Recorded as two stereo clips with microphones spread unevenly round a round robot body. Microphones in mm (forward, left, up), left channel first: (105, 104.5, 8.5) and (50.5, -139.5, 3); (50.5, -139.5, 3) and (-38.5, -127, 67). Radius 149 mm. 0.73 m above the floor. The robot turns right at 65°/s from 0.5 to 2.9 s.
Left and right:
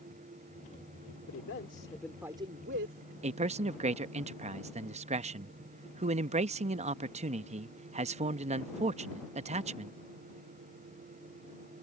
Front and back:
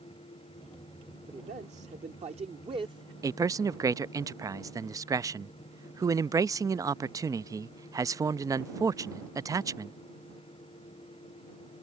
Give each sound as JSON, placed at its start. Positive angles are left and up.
{"t": 1.3, "sound": "a man speaking", "azimuth_deg": 115}
{"t": 3.2, "sound": "a man speaking", "azimuth_deg": -90}